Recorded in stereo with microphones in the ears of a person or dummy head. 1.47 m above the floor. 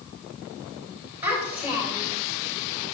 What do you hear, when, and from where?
1.2 s a child speaking: 10° right (ahead or behind), 4 m